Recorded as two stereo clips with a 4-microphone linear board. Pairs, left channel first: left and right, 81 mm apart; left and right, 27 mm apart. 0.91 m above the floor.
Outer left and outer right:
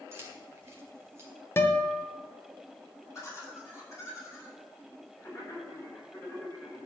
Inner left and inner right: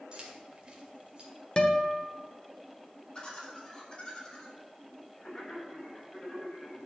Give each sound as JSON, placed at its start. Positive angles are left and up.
{"t": 0.1, "sound": "keys jangling", "side_deg": -35, "distance_m": 2.0}
{"t": 1.6, "sound": "a guitar", "side_deg": 30, "distance_m": 1.1}
{"t": 3.1, "sound": "laughter", "side_deg": 35, "distance_m": 5.0}